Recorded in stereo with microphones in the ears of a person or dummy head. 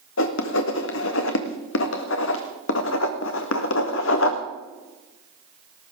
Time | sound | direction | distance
0.2 | writing | 65° left (ahead or behind) | 1.6 m